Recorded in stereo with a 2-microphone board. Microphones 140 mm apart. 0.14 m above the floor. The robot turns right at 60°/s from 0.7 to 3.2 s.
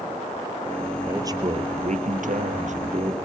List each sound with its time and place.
1.1 s a man speaking: 165° right, 3 m; by 3.1 s 40° right, 3 m